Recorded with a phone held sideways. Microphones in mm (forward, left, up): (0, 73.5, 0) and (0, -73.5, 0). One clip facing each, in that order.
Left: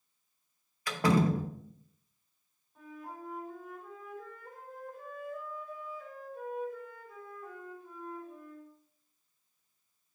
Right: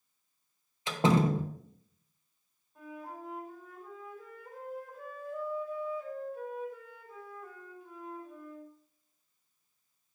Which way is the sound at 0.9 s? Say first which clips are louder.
Right 1 dB; 25° right (ahead or behind).